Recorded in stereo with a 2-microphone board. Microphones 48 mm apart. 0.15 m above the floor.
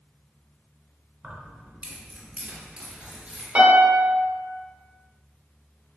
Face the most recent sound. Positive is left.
turn(degrees=-30)  # may be behind; listen again after turning